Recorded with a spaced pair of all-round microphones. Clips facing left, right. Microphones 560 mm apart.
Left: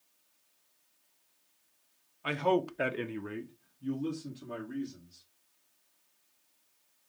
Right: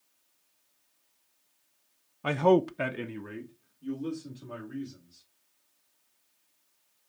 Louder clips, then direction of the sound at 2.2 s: Right 6 dB; 65° right (ahead or behind).